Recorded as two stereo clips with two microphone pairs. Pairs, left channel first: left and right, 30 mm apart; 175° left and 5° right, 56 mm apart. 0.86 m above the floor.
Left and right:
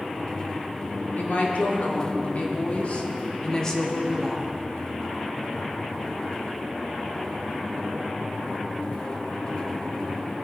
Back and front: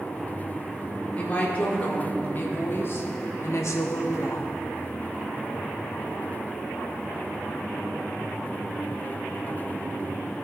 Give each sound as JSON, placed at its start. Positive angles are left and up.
{"t": 1.2, "sound": "a woman speaking", "azimuth_deg": 110, "distance_m": 2.0}